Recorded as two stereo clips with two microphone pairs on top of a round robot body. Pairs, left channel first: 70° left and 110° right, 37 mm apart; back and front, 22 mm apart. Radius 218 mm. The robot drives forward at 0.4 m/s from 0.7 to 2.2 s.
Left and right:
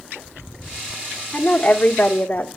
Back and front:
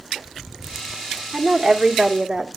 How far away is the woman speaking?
About 1.7 m.